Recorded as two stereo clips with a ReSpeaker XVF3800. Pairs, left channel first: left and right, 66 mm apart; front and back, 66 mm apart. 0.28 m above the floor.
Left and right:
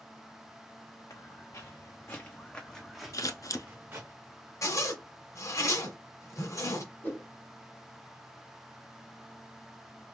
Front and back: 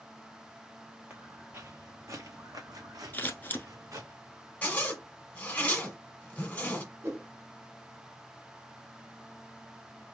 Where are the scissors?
60° left, 0.8 m.